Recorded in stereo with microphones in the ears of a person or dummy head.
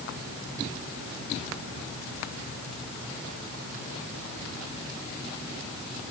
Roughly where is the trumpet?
No trumpet in this recording.